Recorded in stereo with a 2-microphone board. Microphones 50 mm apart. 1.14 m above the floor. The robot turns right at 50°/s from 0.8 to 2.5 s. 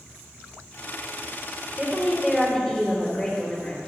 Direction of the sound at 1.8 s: 35° right.